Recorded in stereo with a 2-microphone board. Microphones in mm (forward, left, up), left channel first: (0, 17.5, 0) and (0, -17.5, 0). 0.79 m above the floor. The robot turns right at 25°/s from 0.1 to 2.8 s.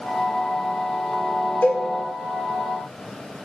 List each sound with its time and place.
1.6 s a cowbell: 70° left (ahead or behind), 2.5 m; by 1.8 s 75° left (ahead or behind), 2.5 m